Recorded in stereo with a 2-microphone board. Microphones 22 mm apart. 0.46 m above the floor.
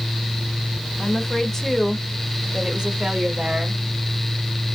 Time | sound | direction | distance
1.0 | a woman speaking | 35° left (ahead or behind) | 1.4 m